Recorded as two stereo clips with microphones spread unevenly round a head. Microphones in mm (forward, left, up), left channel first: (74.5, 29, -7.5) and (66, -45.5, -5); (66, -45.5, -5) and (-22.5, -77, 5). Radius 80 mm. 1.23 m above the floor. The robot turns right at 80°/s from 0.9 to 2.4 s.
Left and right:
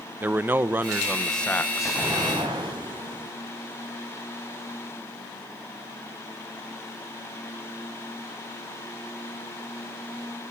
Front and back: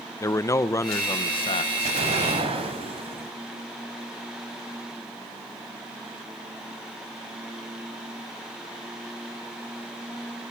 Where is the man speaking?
35° right, 1.1 m; by 2.0 s 55° left, 1.1 m.